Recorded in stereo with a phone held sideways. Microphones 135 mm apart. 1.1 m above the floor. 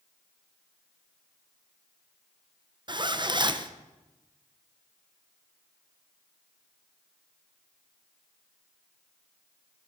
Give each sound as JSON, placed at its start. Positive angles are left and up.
{"t": 2.9, "sound": "a zipper", "side_deg": -35, "distance_m": 0.8}